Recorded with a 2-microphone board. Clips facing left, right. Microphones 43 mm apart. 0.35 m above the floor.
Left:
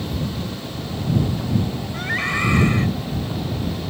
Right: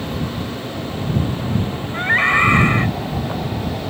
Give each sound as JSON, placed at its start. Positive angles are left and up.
{"t": 1.9, "sound": "a scream", "side_deg": -35}